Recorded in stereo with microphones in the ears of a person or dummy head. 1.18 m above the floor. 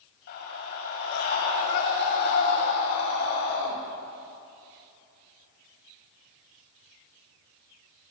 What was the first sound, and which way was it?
A scream, 55° left (ahead or behind).